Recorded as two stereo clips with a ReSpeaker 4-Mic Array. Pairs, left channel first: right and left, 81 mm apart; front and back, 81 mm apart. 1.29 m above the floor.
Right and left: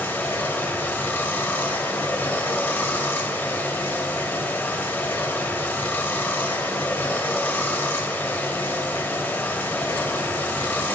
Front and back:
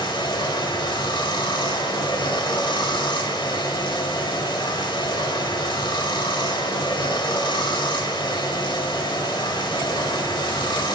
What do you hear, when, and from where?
0.0 s running water: 20° right, 1.9 m